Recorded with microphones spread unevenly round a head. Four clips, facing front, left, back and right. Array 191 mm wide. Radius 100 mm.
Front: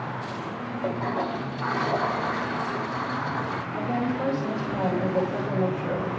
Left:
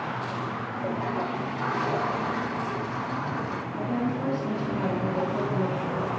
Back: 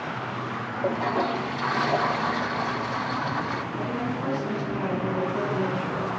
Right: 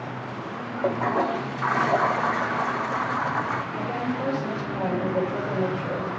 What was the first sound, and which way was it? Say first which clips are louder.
A toilet flushing: right 7 dB, back 3 dB; 115° right.